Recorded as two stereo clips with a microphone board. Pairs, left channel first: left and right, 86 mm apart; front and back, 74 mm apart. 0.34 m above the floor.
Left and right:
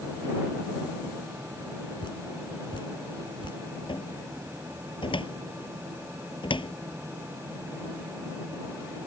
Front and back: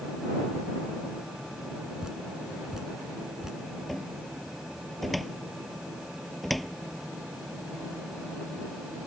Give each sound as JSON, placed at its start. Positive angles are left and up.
{"t": 2.0, "sound": "dripping", "azimuth_deg": 100}
{"t": 3.9, "sound": "a cupboard door", "azimuth_deg": 90}